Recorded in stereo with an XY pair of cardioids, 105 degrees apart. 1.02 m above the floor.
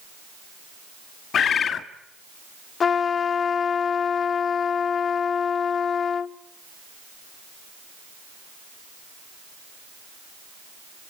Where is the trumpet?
45° left, 0.8 m.